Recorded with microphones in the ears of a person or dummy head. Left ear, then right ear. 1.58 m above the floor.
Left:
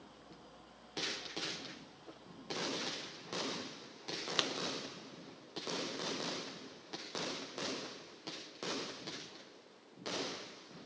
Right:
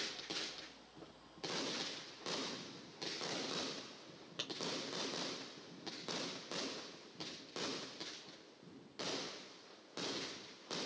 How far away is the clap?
About 0.6 m.